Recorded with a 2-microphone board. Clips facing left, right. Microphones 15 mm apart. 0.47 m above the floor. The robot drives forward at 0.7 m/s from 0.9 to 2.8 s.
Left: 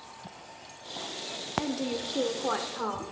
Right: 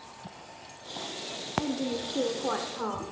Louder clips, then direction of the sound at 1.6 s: Right 1 dB; 20° left (ahead or behind).